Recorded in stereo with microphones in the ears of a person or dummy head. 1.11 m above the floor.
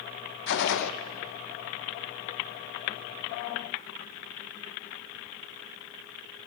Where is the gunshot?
65° left (ahead or behind), 0.5 m.